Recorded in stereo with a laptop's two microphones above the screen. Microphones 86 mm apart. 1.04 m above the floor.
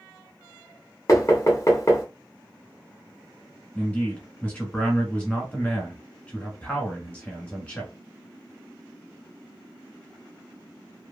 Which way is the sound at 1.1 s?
40° left (ahead or behind).